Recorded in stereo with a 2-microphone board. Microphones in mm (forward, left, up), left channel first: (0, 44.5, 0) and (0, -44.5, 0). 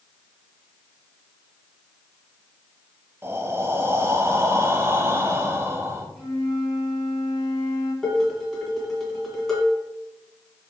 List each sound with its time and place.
3.2 s breathing: 25° right (ahead or behind), 0.6 m
6.2 s a flute: centre (ahead or behind), 1.6 m
8.0 s dishes clattering: 5° left (ahead or behind), 1.6 m